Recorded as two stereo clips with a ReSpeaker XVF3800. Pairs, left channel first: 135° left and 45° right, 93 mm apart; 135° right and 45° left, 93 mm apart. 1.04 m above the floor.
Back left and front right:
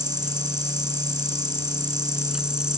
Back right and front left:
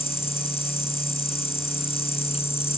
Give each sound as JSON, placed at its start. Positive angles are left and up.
{"t": 0.0, "sound": "an insect", "azimuth_deg": -130}